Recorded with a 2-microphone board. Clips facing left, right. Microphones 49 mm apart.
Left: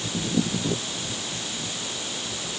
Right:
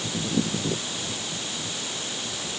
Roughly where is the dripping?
I don't hear dripping.